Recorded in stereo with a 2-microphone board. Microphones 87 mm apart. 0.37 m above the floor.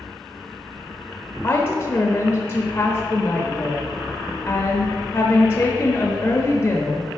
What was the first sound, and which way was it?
A woman speaking, 30° left (ahead or behind).